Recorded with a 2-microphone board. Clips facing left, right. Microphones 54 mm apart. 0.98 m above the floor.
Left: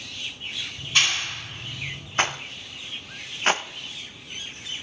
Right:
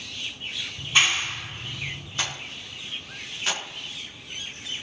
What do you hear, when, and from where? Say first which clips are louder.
0.8 s a clap: right 2 dB; 15° right (ahead or behind), 2.5 m
2.2 s a rattle: left 8 dB; 40° left (ahead or behind), 0.9 m